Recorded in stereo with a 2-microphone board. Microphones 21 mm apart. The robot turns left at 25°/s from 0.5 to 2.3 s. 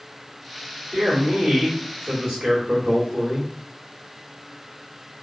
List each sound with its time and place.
0.9 s a man speaking: 80° right, 1.3 m; by 3.5 s 115° right, 1.3 m